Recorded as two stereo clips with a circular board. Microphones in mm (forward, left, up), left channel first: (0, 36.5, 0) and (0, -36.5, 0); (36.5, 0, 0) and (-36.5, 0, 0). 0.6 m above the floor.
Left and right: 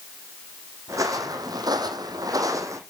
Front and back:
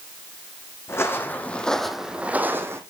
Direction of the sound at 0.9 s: 50° right.